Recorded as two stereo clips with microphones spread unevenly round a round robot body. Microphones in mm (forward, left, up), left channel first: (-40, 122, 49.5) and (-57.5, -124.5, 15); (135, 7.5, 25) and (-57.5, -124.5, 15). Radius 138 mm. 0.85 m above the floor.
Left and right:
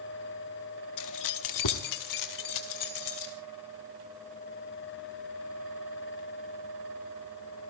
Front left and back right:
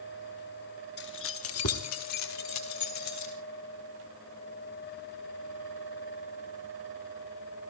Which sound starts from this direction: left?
Keys jangling, at 1.0 s.